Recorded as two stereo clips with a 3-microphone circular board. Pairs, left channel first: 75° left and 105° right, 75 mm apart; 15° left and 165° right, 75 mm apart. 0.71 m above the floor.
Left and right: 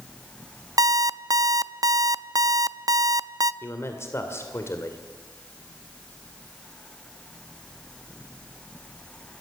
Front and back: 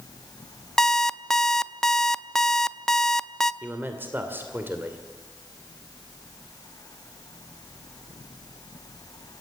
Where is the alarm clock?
65° right, 0.5 m.